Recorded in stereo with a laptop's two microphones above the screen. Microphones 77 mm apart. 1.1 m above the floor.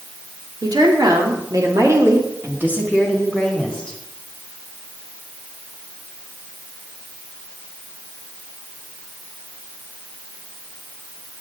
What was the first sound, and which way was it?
A woman speaking, 70° right (ahead or behind).